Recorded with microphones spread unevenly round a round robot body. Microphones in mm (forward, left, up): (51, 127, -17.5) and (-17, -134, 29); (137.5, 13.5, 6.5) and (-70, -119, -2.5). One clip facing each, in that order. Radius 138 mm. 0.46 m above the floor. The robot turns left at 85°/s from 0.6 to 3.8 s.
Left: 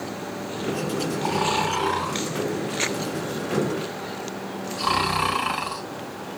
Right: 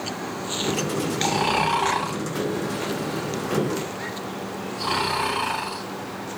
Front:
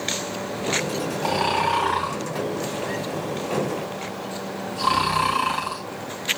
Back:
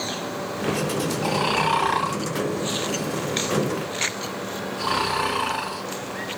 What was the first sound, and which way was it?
Snoring, 65° right.